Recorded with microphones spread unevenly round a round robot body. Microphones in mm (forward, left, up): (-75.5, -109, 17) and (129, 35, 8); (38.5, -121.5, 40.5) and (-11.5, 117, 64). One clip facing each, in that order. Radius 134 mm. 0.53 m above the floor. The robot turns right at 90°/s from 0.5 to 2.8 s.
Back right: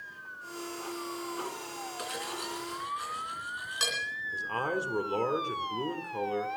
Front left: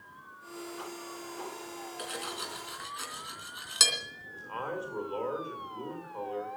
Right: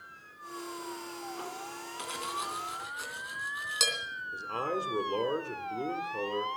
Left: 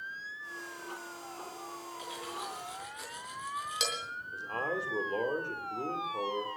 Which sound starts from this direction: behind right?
A man speaking, at 4.3 s.